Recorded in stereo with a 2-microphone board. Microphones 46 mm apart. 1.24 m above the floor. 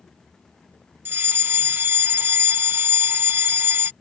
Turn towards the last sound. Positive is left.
turn(degrees=-45)  # may be behind; listen again after turning